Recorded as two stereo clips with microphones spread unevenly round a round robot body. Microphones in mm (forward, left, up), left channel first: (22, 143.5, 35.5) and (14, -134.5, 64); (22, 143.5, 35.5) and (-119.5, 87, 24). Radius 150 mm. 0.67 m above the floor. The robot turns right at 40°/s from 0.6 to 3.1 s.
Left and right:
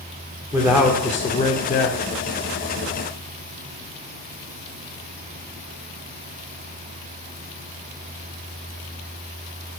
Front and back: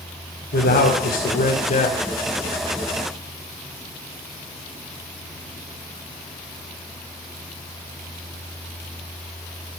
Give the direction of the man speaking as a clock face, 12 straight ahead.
12 o'clock.